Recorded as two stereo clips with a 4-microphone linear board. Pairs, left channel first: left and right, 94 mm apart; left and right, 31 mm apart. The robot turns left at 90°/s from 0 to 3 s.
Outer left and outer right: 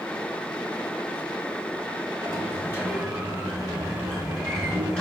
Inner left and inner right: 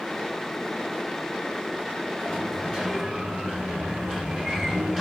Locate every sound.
2.2 s a sliding door: 85° left, 1.9 m; by 5.0 s 20° left, 1.9 m